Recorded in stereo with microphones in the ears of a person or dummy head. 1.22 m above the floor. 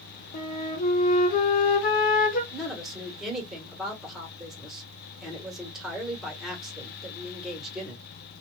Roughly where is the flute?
Left.